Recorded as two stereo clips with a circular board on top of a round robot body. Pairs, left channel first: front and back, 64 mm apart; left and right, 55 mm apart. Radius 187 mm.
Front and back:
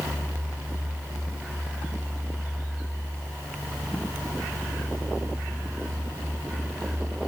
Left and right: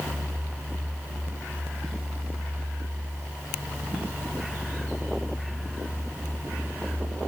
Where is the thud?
I don't hear a thud.